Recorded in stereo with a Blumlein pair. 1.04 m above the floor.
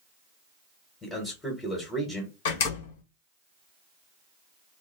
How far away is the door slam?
About 1.0 m.